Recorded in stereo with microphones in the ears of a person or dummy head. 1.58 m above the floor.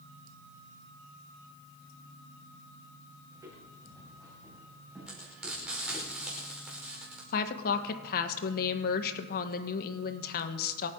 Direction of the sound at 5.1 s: 5° right (ahead or behind).